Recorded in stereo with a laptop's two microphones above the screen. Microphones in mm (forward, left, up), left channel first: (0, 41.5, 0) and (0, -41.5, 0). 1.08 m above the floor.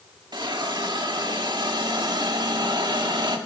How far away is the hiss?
About 1.7 m.